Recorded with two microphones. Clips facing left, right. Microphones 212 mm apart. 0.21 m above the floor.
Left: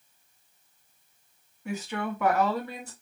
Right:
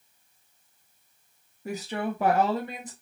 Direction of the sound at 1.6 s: 40° right (ahead or behind).